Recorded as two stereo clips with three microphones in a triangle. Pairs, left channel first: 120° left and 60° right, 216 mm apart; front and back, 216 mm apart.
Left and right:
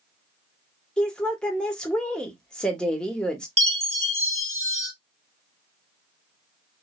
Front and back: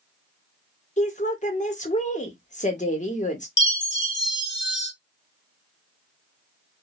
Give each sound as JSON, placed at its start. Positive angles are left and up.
{"t": 1.0, "sound": "a woman speaking", "azimuth_deg": 35, "distance_m": 0.9}
{"t": 3.6, "sound": "a chime", "azimuth_deg": -5, "distance_m": 1.4}